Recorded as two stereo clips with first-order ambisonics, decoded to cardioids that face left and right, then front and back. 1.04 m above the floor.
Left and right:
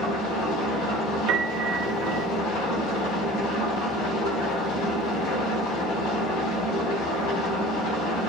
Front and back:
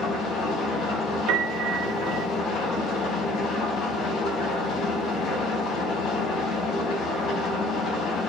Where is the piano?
145° right, 1.8 m.